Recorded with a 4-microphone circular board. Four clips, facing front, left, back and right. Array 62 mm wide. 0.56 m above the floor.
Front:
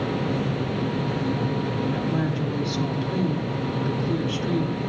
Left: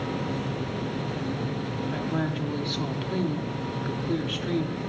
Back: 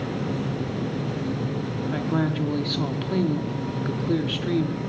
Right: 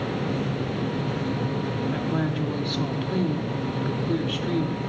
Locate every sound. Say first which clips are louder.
1.9 s a woman speaking: even, back 1 dB; straight behind, 1.0 m